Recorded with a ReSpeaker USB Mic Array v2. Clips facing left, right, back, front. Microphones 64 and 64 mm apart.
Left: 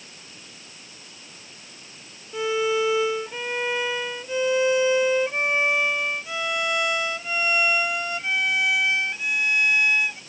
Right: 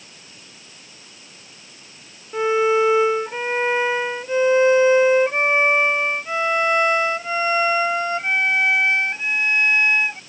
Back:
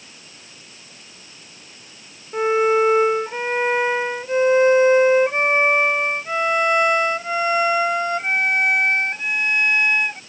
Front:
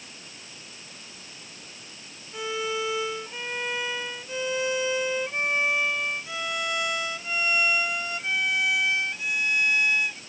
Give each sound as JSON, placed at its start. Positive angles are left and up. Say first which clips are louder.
{"t": 2.3, "sound": "a violin", "louder": "right 6 dB, back 13 dB", "azimuth_deg": -140}